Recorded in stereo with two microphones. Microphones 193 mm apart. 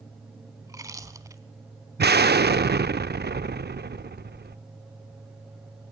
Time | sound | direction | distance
0.6 | chewing | 15° right (ahead or behind) | 0.9 m
2.0 | an explosion | 60° right (ahead or behind) | 0.5 m